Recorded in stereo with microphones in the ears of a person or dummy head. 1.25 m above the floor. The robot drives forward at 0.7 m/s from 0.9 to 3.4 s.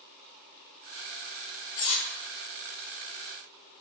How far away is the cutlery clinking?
About 0.7 m.